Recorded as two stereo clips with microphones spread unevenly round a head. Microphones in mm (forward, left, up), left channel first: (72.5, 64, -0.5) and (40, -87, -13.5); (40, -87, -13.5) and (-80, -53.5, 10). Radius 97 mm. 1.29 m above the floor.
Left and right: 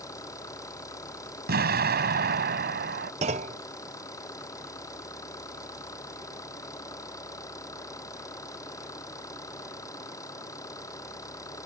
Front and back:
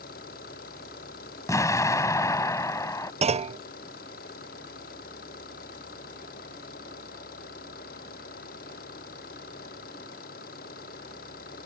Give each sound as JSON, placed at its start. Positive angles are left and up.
{"t": 0.0, "sound": "an engine running", "azimuth_deg": 10}
{"t": 1.5, "sound": "an explosion", "azimuth_deg": -80}
{"t": 3.2, "sound": "a clunk", "azimuth_deg": -155}